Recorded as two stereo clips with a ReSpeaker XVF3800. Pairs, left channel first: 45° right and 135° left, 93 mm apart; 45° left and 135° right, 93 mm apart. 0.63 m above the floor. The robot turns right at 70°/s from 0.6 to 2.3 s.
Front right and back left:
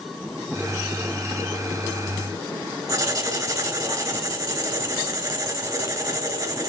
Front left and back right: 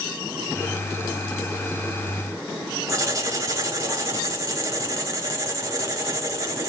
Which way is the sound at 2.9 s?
Straight behind.